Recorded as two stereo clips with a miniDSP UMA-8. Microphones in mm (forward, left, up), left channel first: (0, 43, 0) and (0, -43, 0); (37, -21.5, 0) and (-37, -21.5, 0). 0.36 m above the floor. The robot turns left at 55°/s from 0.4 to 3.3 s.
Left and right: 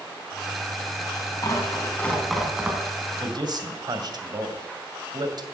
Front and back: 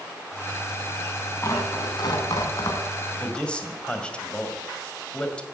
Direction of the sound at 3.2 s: 70° right.